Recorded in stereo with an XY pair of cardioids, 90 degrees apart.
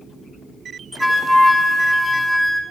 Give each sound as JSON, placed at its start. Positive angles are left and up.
{"t": 1.0, "sound": "a flute", "azimuth_deg": -10, "distance_m": 1.1}